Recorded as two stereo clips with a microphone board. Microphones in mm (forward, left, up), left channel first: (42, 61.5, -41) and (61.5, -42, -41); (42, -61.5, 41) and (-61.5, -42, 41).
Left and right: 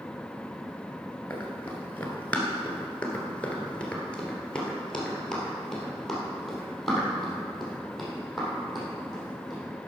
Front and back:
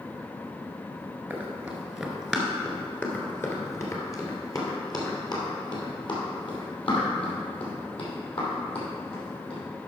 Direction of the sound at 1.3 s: 130° left.